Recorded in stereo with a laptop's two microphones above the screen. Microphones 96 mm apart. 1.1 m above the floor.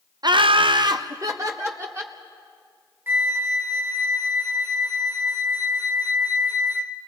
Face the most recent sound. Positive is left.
turn(degrees=-20)  # may be behind; listen again after turning